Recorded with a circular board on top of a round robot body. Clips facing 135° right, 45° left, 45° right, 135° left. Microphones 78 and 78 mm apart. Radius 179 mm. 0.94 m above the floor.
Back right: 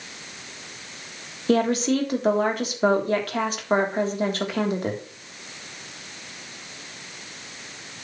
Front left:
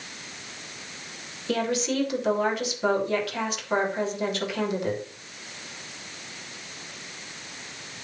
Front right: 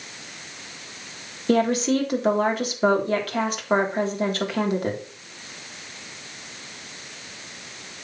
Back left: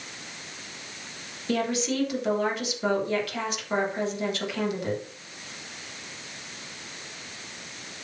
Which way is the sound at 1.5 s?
90° right.